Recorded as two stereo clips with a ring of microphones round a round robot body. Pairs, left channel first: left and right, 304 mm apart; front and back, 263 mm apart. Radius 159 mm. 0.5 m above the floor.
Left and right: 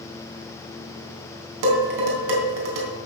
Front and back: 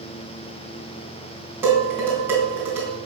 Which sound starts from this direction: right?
Dishes clattering, at 1.6 s.